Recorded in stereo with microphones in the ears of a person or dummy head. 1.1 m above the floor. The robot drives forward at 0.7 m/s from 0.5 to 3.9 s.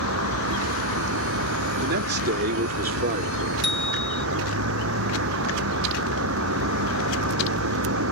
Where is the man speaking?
65° right (ahead or behind); by 3.5 s 45° right (ahead or behind).